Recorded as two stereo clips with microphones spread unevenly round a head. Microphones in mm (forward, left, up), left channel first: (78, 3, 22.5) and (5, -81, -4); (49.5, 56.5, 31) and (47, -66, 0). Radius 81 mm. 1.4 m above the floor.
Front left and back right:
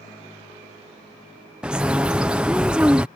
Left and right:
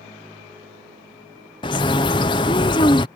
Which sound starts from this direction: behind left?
A bird, at 1.6 s.